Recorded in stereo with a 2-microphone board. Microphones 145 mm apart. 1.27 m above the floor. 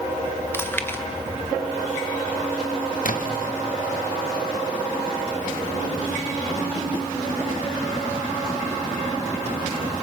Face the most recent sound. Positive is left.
turn(degrees=70)  # may be behind; listen again after turning